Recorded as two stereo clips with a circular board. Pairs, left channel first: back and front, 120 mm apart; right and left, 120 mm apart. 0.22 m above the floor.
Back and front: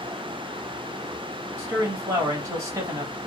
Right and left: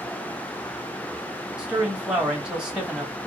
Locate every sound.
1.6 s a man speaking: 15° left, 1.0 m